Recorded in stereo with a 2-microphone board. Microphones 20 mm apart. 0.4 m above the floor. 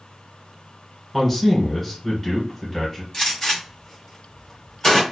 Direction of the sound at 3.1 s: 25° left (ahead or behind).